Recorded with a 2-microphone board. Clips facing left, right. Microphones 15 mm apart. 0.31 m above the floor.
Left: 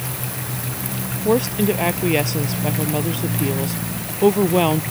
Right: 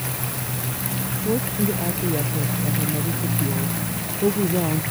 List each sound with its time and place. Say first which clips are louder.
1.2 s a woman speaking: left 6 dB; 70° left (ahead or behind)